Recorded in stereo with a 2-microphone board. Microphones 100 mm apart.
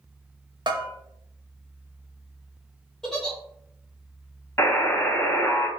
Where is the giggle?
5° left (ahead or behind), 0.8 m.